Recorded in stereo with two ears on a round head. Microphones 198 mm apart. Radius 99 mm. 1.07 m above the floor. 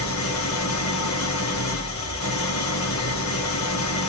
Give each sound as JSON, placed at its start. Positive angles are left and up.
{"t": 0.0, "sound": "an engine running", "side_deg": 75, "distance_m": 2.5}